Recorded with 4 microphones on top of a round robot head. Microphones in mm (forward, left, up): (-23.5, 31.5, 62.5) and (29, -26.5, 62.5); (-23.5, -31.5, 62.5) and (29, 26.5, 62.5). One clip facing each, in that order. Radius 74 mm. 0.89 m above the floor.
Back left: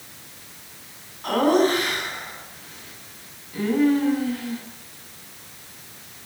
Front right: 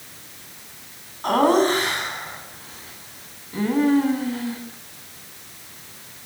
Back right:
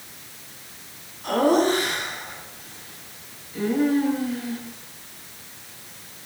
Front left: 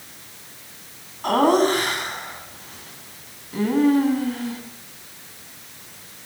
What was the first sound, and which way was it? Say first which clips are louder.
Laughter: front right 1 dB, front left 2 dB; 10° left.